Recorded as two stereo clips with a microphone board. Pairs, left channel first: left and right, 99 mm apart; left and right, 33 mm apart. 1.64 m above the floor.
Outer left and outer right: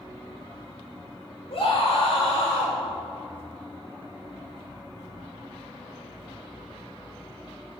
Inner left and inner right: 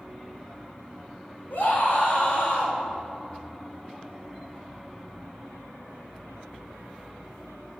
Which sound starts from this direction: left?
A scream, at 1.5 s.